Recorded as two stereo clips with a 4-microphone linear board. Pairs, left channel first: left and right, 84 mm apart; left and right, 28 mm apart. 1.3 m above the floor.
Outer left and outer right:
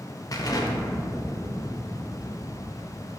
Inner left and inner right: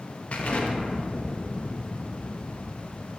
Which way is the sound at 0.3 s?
45° left (ahead or behind).